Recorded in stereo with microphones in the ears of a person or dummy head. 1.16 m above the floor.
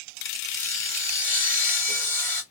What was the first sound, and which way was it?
Sawing, 20° left (ahead or behind).